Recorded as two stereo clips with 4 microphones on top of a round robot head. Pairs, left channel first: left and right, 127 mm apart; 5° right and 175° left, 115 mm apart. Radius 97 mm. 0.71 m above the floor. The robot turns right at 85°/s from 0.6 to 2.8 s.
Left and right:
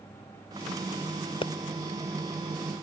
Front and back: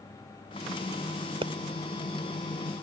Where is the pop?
135° left; by 1.5 s 145° left.